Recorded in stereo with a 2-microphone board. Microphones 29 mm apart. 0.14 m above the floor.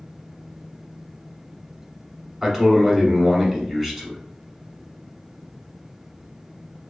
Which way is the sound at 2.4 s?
10° right (ahead or behind).